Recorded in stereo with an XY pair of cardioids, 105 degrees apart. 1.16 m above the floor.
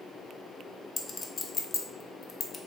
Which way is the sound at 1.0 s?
35° left.